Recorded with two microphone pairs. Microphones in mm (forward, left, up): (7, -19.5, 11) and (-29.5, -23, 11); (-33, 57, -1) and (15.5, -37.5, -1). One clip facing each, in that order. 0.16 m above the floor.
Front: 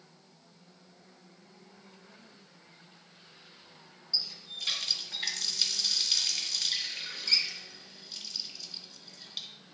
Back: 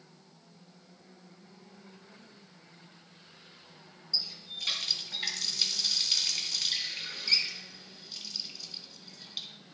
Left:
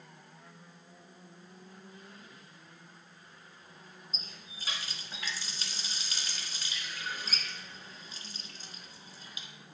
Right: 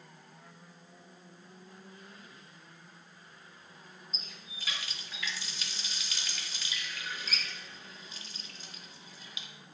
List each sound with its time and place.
4.1 s a running tap: 105° left, 1.1 m